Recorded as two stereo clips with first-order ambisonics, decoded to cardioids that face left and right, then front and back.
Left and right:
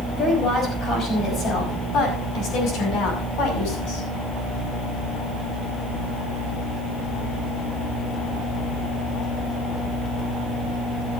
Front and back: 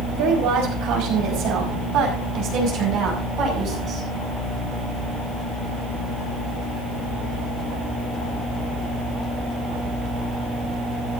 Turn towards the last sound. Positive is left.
turn(degrees=125)